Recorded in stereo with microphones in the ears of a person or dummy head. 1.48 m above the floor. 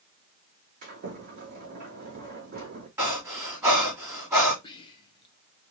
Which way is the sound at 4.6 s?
25° left (ahead or behind).